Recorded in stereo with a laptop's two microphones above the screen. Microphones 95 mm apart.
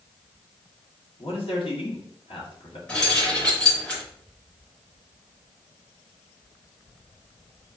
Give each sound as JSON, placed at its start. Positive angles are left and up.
{"t": 1.2, "sound": "a man speaking", "side_deg": 70, "distance_m": 2.0}
{"t": 2.9, "sound": "keys jangling", "side_deg": 15, "distance_m": 3.0}